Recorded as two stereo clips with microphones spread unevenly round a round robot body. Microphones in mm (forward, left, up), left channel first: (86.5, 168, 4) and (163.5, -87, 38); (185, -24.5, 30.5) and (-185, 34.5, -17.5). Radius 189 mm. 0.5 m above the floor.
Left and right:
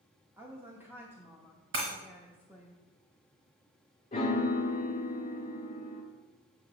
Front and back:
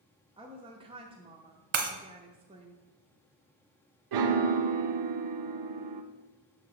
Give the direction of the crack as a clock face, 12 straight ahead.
No crack in this recording.